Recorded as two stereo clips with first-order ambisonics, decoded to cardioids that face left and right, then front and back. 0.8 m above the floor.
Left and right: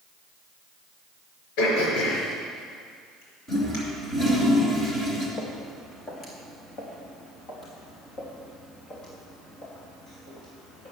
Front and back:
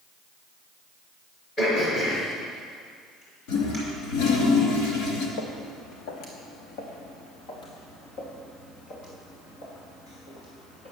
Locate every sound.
1.6 s throat clearing: 70° left, 5 m
3.5 s a toilet flushing: 20° left, 3 m
5.4 s footsteps: 20° left, 2 m; by 10.9 s 40° left, 6.5 m